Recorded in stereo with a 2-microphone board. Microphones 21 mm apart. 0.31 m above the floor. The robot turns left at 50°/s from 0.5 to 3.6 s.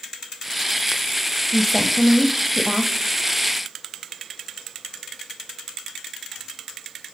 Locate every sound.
1.5 s a woman speaking: 20° left, 1.2 m; by 3.0 s 55° right, 1.2 m